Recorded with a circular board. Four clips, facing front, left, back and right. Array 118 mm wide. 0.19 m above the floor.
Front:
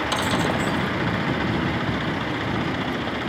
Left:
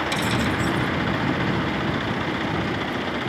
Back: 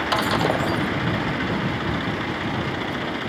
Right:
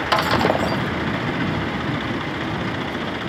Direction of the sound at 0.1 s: 105° right.